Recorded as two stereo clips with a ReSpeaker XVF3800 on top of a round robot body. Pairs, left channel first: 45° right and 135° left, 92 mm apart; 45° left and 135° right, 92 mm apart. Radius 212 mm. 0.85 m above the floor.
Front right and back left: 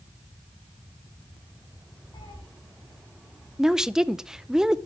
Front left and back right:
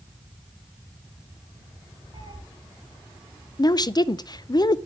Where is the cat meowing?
95° right, 2.5 m.